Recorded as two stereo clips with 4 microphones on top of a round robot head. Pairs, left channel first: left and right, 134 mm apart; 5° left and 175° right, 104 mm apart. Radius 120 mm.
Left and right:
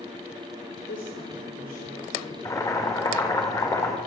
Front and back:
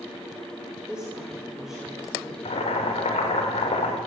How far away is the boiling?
About 5.5 m.